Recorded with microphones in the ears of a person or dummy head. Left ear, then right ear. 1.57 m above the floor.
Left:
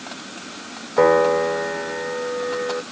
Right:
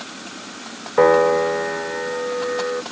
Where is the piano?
5° right (ahead or behind).